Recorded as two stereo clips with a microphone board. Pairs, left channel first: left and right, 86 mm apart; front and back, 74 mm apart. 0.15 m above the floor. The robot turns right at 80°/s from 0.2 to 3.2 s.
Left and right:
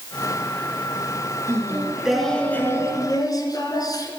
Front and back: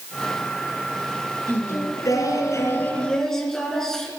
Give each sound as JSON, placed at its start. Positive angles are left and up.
{"t": 1.5, "sound": "singing", "azimuth_deg": -55, "distance_m": 2.0}